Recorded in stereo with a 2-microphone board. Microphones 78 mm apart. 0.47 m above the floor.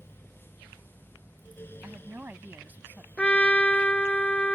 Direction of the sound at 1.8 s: 25° right (ahead or behind).